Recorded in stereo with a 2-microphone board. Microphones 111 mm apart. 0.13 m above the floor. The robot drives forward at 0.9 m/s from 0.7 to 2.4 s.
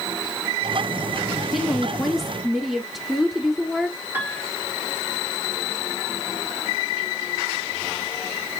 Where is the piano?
20° right (ahead or behind), 2.5 m.